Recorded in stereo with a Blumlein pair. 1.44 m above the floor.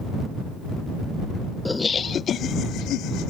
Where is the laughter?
5° left; by 3.3 s 40° left.